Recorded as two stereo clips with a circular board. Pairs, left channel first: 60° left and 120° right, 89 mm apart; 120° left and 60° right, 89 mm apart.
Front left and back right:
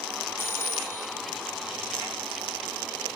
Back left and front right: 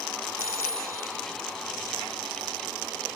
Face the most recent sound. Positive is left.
turn(degrees=-5)